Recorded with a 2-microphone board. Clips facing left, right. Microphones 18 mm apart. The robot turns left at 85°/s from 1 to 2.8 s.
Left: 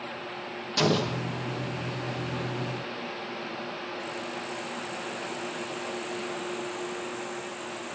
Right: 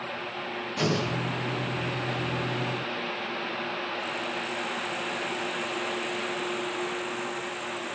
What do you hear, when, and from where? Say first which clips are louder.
0.8 s an explosion: left 3 dB; 85° left, 1.7 m; by 1.2 s 65° left (ahead or behind), 1.7 m